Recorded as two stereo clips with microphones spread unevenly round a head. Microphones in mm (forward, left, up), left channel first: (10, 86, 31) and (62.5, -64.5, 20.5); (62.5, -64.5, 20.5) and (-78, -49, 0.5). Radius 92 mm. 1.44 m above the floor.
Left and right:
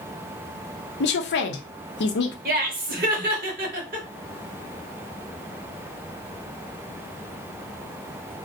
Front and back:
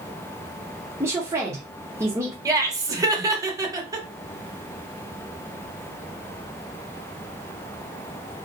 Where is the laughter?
115° right, 1.0 m.